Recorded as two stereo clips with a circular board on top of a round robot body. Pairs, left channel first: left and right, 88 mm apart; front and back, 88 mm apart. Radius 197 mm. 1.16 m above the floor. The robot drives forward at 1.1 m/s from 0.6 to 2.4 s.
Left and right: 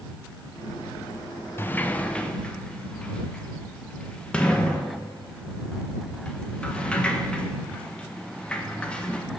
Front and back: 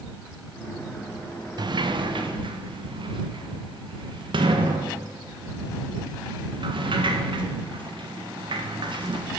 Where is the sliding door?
155° left, 0.8 m; by 9.3 s 170° left, 1.6 m.